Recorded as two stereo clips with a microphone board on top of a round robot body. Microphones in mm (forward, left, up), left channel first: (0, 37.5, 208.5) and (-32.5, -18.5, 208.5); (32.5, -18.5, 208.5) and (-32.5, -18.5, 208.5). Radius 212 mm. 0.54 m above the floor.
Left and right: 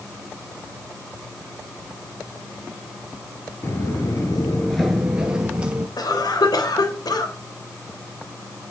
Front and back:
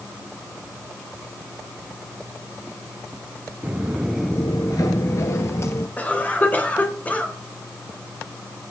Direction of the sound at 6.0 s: 65° left.